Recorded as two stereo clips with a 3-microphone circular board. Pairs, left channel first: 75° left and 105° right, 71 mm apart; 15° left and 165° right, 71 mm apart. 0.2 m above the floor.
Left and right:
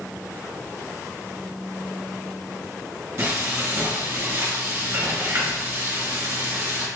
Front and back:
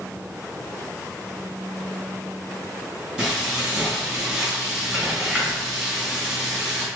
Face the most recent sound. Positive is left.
turn(degrees=-90)